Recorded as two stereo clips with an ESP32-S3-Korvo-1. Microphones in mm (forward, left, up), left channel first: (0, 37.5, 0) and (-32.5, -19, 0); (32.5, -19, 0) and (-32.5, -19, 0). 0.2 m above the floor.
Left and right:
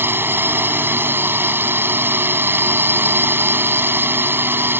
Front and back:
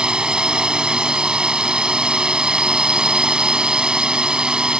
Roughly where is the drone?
Right.